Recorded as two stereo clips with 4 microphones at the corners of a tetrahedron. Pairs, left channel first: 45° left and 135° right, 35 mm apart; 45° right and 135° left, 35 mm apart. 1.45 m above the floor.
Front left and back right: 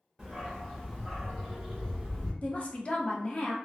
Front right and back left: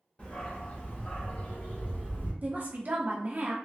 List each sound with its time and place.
0.2 s a dog barking: 55° right, 1.3 m; by 2.3 s 35° right, 2 m
2.4 s a woman speaking: 95° left, 0.8 m